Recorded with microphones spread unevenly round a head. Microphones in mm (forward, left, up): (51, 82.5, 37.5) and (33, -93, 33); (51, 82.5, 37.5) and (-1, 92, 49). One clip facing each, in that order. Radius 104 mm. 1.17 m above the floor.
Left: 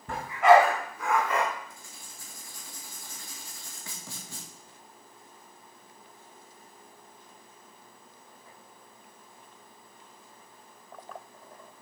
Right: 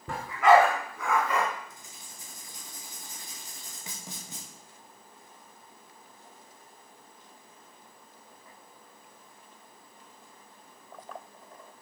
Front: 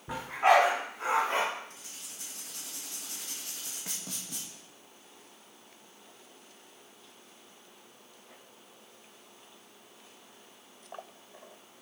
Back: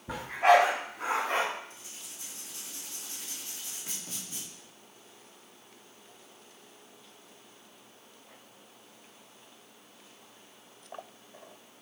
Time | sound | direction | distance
0.1 | a dog barking | 85° right | 4.5 m
1.7 | writing | 25° right | 2 m